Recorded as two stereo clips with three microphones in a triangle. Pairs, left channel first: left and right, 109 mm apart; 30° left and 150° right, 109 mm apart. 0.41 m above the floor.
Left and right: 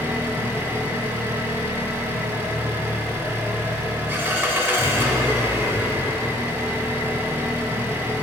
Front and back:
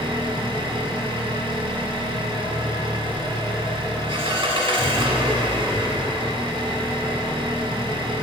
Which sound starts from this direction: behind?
An engine running, at 0.0 s.